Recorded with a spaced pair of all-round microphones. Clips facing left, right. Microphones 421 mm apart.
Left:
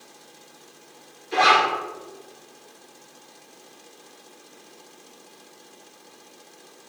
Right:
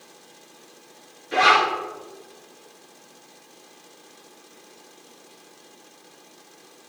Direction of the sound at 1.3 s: 75° right (ahead or behind).